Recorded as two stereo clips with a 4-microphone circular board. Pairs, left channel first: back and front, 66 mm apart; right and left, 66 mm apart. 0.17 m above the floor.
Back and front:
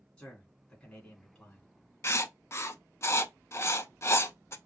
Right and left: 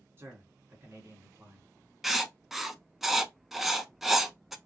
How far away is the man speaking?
About 1.6 m.